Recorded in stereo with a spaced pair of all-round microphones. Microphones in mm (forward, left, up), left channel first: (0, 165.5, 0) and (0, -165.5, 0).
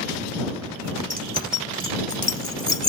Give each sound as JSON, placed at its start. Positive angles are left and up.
{"t": 1.1, "sound": "keys jangling", "side_deg": -25}